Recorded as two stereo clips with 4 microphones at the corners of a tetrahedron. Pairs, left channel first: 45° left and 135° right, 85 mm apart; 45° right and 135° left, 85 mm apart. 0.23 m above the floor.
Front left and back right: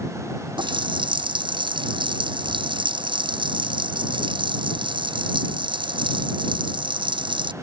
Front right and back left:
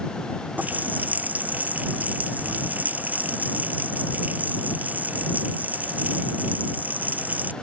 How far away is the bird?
I don't hear a bird.